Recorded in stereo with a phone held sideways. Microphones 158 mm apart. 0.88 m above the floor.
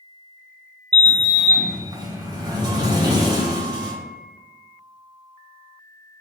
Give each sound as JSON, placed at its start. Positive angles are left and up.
{"t": 0.9, "sound": "a sliding door", "side_deg": -25, "distance_m": 0.6}